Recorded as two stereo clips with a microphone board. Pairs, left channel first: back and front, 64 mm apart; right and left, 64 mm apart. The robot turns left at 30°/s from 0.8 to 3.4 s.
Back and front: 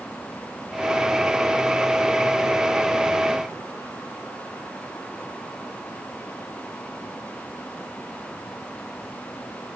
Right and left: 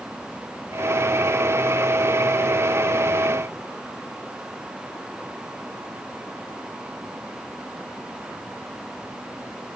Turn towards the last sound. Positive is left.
No sound to turn to.